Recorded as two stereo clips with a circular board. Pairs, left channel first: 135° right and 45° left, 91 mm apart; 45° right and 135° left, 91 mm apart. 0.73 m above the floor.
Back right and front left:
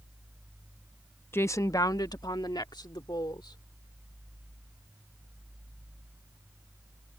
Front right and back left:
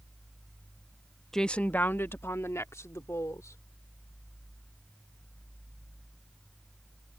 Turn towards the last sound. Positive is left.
turn(degrees=-100)